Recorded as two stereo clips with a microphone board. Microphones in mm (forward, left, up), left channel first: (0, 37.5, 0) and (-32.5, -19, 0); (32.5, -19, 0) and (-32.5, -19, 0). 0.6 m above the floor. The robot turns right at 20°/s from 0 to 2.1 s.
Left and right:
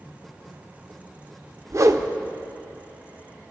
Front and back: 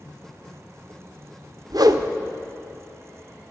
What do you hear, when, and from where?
1.7 s a whoosh: 160° right, 0.5 m; by 2.1 s 155° right, 0.5 m